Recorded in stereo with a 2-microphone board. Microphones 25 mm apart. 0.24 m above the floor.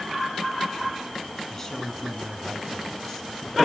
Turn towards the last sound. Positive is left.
turn(degrees=20)  # may be behind; listen again after turning